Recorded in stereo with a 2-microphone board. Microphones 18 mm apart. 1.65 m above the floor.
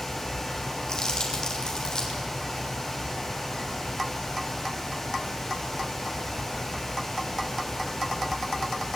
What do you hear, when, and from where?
0.9 s crumpling: 45° left (ahead or behind), 4.5 m